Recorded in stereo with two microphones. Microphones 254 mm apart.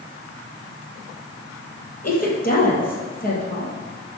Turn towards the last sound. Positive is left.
turn(degrees=35)  # may be behind; listen again after turning